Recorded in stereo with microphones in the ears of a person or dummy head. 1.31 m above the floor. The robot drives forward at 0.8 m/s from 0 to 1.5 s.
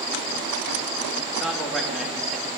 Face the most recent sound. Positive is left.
turn(degrees=0)  # may be behind; listen again after turning